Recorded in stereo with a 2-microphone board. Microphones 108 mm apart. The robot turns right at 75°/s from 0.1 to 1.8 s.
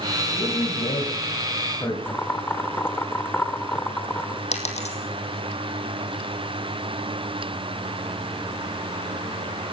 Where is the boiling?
20° left (ahead or behind), 1.2 m.